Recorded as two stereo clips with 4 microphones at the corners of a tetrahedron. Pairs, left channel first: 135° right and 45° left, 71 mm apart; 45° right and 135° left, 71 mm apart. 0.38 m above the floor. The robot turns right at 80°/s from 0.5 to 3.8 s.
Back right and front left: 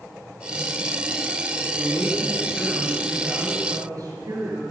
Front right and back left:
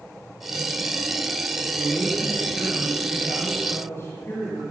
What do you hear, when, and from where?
1.7 s a man speaking: 155° right, 6 m; by 4.6 s 10° left, 6 m